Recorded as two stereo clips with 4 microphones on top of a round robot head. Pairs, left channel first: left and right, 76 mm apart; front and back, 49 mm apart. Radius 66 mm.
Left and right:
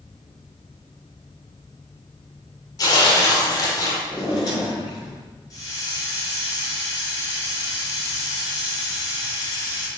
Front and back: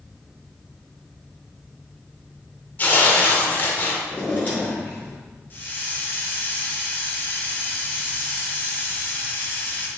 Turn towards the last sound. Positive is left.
turn(degrees=50)